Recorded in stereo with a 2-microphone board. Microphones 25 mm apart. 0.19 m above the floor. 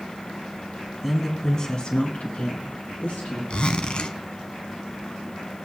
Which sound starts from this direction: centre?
A woman speaking, at 1.0 s.